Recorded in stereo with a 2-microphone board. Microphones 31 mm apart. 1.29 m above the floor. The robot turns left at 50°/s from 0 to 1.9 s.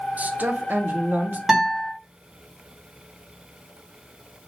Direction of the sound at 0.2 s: 60° right.